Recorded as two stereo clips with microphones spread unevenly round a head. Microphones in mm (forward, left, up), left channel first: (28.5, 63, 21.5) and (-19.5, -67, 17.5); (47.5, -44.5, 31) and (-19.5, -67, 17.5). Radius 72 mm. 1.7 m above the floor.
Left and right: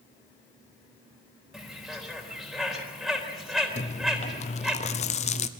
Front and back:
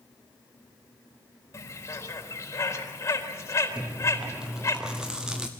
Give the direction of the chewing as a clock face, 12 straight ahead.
8 o'clock.